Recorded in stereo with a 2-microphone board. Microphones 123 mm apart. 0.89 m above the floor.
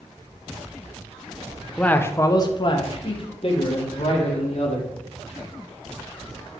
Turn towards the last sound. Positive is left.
turn(degrees=65)  # may be behind; listen again after turning